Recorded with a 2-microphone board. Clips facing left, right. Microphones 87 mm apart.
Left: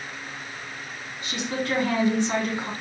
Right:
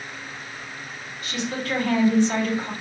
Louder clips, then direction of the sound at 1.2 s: Even; 25° left (ahead or behind).